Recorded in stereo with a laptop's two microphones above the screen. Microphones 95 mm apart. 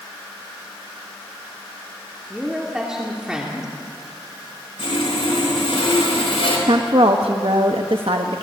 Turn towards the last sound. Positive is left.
turn(degrees=-70)  # may be behind; listen again after turning